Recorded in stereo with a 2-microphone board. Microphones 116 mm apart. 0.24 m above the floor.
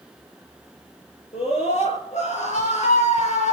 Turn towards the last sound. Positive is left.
turn(degrees=75)  # may be behind; listen again after turning